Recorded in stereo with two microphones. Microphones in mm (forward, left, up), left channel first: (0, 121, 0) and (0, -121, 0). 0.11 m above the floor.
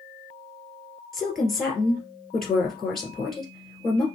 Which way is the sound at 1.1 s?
Centre (ahead or behind).